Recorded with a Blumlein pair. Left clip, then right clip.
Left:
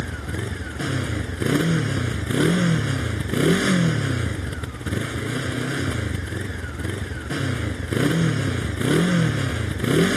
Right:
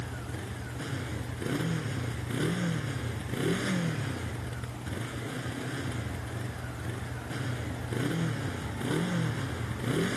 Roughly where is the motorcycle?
Ahead left.